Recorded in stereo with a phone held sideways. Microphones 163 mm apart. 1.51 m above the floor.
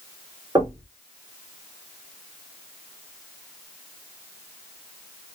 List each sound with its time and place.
0.6 s knocking: 30° right (ahead or behind), 3 m